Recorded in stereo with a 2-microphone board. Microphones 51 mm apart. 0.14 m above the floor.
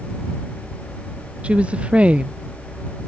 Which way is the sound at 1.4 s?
20° right (ahead or behind).